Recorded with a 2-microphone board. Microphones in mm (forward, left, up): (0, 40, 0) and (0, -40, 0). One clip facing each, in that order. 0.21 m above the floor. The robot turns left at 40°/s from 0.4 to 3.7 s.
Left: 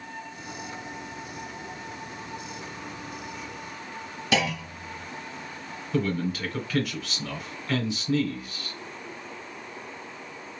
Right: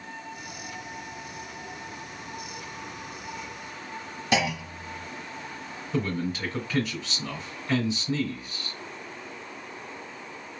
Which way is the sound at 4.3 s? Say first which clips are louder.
Even; 15° right (ahead or behind).